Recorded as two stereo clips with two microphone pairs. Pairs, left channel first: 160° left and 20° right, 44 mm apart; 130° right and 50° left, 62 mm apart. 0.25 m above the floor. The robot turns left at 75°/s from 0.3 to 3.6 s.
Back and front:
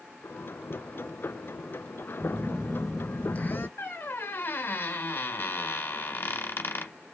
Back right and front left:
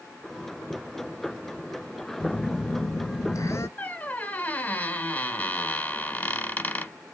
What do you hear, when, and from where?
2.2 s a phone buzzing: 60° right, 0.6 m; by 3.7 s 165° right, 0.6 m
3.8 s a squeak: 170° left, 0.7 m